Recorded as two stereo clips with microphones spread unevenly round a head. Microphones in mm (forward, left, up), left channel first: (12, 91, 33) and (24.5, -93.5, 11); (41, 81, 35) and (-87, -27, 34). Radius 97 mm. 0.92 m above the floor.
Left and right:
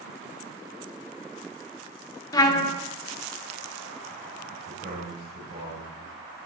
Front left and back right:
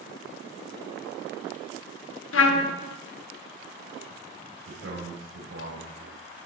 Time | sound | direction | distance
2.3 | a trumpet | 25° left | 0.8 m
4.7 | a man speaking | 140° right | 3.5 m